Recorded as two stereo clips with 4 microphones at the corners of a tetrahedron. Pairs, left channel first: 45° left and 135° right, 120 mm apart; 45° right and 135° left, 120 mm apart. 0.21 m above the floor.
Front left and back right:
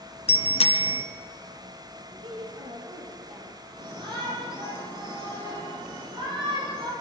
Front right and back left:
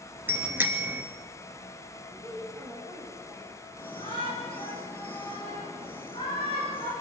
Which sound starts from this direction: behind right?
A woman speaking, at 2.1 s.